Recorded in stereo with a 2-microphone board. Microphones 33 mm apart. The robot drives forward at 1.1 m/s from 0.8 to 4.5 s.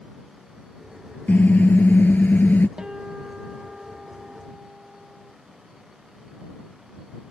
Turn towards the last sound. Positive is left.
turn(degrees=-15)  # may be behind; listen again after turning